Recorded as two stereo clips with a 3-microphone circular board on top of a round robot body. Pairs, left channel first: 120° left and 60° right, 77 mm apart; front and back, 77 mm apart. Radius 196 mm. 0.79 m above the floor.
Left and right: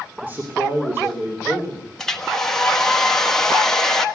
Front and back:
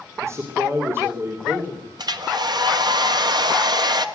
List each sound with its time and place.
0.2 s a man speaking: 130° right, 3 m; by 1.9 s 115° right, 3.5 m
2.0 s a hair dryer: 155° right, 1.9 m